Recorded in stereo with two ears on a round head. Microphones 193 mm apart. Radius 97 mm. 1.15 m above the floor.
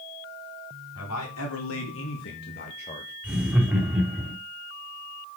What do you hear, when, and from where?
0.9 s a man speaking: 80° left, 3.5 m; by 3.1 s 10° left (ahead or behind), 1.3 m
3.2 s laughter: 5° right (ahead or behind), 2.5 m